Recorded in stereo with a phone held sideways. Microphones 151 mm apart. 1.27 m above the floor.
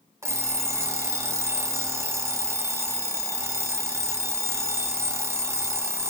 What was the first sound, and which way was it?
An alarm clock, 20° right (ahead or behind).